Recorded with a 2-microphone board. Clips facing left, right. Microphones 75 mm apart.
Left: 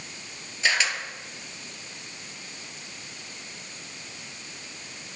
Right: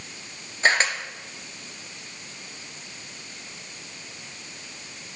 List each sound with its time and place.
0.6 s a camera shutter: 40° right (ahead or behind), 0.9 m